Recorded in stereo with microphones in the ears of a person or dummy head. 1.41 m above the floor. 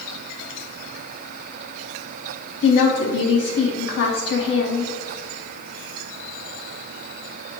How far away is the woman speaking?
About 0.5 m.